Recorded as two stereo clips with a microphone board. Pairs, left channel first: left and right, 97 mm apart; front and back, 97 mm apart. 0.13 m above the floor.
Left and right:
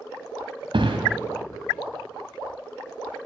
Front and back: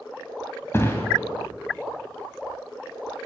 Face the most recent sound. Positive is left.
turn(degrees=-65)